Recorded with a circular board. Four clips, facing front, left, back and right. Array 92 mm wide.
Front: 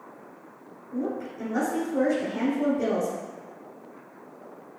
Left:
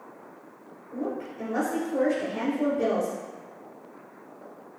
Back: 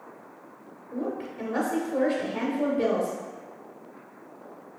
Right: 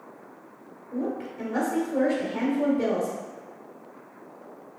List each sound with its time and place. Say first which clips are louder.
0.9 s a woman speaking: right 2 dB, front 1 dB; 160° right, 1.5 m